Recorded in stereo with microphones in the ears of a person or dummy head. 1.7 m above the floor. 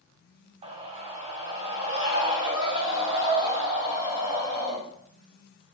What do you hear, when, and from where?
0.6 s a scream: 30° right (ahead or behind), 0.9 m